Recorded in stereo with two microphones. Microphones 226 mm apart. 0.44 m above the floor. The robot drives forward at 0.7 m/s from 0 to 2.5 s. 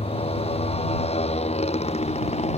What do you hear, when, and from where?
0.0 s a motorcycle: 25° left (ahead or behind); by 2.6 s 30° left (ahead or behind)